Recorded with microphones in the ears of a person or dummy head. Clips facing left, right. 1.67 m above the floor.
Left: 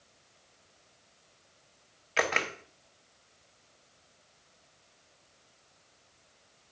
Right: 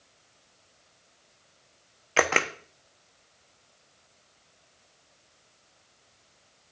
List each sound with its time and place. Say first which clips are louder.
2.2 s a camera shutter: right 5 dB; 65° right (ahead or behind), 1.0 m